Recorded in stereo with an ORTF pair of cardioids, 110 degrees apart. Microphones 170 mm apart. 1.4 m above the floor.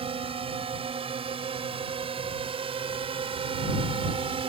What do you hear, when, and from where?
0.0 s a drone: 35° right